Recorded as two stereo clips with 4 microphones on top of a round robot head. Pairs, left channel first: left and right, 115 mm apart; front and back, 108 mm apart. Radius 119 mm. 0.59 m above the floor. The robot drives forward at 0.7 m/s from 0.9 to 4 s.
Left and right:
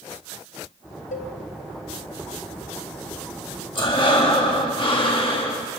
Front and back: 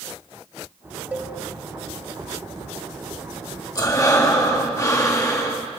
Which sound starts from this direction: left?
A cowbell, at 1.1 s.